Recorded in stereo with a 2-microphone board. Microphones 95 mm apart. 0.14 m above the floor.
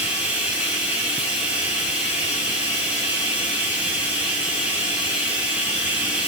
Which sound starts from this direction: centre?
Running water, at 0.0 s.